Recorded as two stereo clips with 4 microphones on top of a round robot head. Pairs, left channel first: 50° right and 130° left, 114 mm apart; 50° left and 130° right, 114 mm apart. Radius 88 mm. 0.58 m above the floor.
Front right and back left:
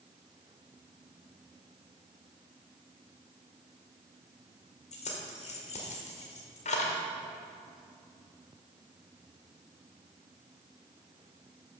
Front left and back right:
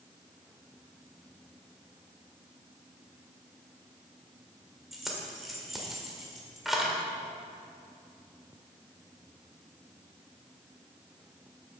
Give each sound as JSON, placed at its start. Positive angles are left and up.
{"t": 4.9, "sound": "keys jangling", "azimuth_deg": -40, "distance_m": 1.8}